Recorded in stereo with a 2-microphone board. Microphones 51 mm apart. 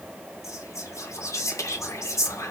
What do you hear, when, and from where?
0.4 s whispering: 70° left (ahead or behind), 1.2 m